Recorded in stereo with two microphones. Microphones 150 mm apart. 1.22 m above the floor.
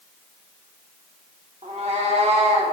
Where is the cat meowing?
45° right (ahead or behind), 1.1 m.